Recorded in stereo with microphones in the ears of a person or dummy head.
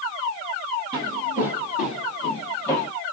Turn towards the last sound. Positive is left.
turn(degrees=20)  # may be behind; listen again after turning